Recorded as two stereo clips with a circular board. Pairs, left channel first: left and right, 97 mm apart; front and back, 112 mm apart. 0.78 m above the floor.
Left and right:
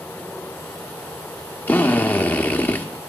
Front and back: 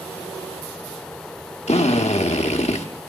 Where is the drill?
20° left, 0.8 m.